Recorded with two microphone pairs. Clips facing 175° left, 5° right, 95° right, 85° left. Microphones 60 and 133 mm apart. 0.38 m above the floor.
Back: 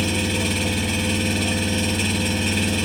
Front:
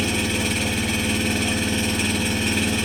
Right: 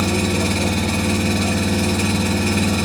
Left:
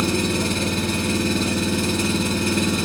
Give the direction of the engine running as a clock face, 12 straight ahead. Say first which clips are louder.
Even, right 2 dB; 3 o'clock.